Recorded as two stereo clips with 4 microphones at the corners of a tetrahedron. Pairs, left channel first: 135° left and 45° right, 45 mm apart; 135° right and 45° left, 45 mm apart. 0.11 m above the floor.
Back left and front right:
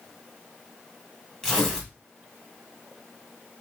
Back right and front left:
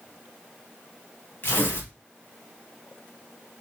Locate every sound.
1.4 s tearing paper: 155° right, 2 m